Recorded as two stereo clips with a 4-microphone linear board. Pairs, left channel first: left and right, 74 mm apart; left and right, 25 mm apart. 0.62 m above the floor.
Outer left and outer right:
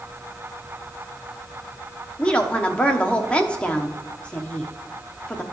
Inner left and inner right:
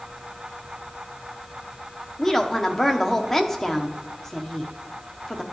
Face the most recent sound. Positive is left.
turn(degrees=15)  # may be behind; listen again after turning